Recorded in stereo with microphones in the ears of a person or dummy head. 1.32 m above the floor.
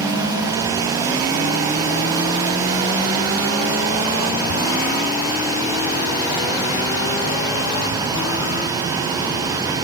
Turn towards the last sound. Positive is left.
turn(degrees=-45)  # may be behind; listen again after turning